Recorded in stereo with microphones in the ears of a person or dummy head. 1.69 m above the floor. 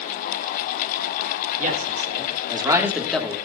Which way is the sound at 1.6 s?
45° right (ahead or behind).